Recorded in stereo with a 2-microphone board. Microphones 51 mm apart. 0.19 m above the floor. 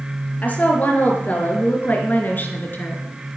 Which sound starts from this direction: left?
A woman speaking, at 0.4 s.